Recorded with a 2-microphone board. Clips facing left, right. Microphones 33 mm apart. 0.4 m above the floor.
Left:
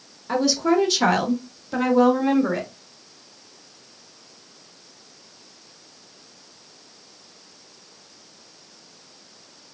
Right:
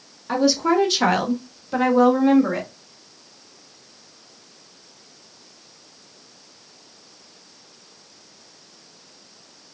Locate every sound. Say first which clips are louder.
0.3 s a woman speaking: right 1 dB; 10° right (ahead or behind), 0.9 m; by 2.7 s 5° right (ahead or behind), 1.8 m